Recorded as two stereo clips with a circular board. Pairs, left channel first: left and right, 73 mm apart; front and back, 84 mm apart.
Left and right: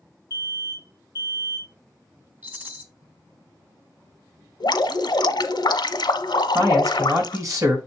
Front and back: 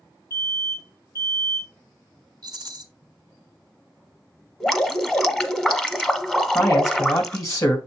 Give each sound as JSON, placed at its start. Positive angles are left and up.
{"t": 0.3, "sound": "an alarm", "azimuth_deg": -45, "distance_m": 4.5}
{"t": 2.4, "sound": "a rattle", "azimuth_deg": -150, "distance_m": 1.6}
{"t": 4.6, "sound": "dripping", "azimuth_deg": 85, "distance_m": 0.8}
{"t": 6.5, "sound": "a man speaking", "azimuth_deg": -50, "distance_m": 2.5}